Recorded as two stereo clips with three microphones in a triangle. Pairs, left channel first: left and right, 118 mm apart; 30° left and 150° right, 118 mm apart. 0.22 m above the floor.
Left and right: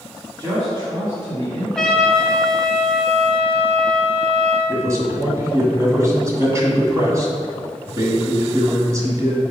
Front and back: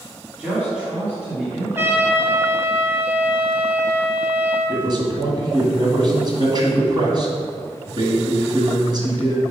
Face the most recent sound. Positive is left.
turn(degrees=-140)